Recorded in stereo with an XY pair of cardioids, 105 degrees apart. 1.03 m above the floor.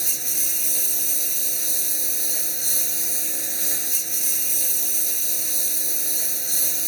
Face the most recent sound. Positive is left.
turn(degrees=-10)